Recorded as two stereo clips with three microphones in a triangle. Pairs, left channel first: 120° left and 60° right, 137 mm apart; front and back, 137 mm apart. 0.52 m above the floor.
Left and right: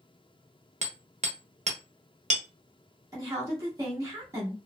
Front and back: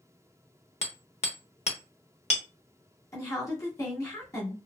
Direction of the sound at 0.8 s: 35° right.